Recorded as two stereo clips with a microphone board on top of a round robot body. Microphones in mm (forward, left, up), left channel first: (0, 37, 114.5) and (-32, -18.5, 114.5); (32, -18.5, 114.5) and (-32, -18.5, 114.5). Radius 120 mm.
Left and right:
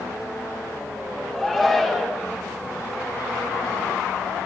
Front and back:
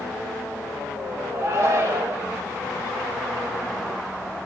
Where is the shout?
145° left, 3 m.